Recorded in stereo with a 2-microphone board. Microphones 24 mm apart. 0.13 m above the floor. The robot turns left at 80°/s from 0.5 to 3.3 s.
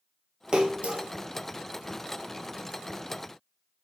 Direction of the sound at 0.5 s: 35° right (ahead or behind).